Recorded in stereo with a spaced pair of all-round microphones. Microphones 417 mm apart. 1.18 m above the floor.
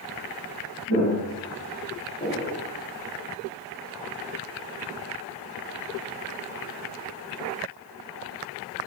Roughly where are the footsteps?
Right.